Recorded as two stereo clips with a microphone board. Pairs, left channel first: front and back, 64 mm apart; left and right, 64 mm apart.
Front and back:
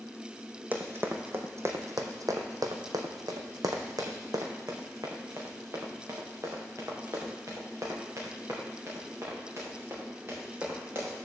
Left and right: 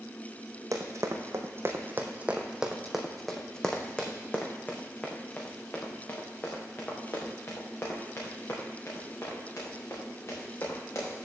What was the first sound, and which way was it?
Running footsteps, 120° right.